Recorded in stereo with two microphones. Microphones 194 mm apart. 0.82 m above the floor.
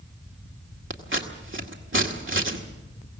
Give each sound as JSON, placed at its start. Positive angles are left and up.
{"t": 0.9, "sound": "scissors", "side_deg": -80, "distance_m": 1.9}